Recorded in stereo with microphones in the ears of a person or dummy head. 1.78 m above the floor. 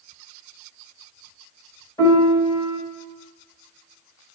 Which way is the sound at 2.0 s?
20° left (ahead or behind).